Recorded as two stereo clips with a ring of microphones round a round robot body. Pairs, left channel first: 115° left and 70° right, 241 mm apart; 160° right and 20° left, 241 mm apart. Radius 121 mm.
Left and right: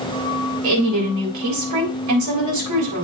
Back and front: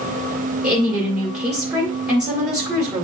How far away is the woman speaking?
About 3.5 m.